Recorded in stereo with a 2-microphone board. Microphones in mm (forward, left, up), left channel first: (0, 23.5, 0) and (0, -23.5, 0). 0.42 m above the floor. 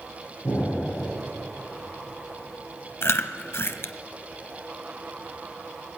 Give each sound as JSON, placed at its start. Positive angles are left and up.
{"t": 0.4, "sound": "an explosion", "side_deg": 60, "distance_m": 6.0}
{"t": 3.0, "sound": "chewing", "side_deg": 60, "distance_m": 0.7}